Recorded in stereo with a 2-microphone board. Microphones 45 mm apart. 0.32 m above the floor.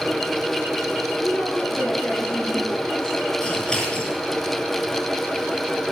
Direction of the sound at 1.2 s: 60° left (ahead or behind).